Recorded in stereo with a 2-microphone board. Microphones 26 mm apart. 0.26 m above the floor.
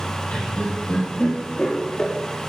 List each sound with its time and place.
0.3 s laughter: 60° left (ahead or behind), 5.5 m; by 2.1 s 30° left (ahead or behind), 4 m